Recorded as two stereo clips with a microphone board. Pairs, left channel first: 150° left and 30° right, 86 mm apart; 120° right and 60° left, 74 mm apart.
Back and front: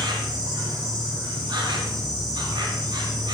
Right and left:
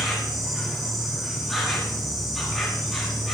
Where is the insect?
30° right, 4.5 m.